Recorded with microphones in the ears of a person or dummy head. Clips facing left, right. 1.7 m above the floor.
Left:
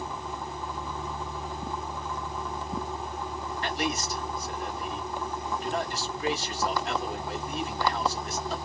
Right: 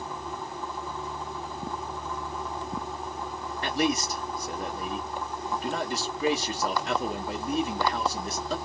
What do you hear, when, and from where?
3.6 s a man speaking: 70° right (ahead or behind), 1.7 m